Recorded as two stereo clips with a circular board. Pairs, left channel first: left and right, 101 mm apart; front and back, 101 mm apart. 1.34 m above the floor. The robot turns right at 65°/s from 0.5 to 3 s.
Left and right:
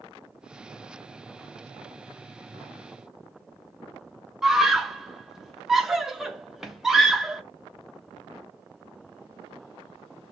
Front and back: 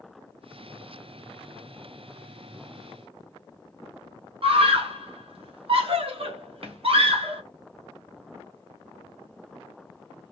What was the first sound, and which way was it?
A scream, 175° right.